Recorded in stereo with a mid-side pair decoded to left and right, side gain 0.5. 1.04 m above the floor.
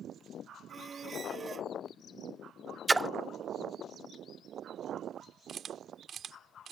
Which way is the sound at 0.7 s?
35° right.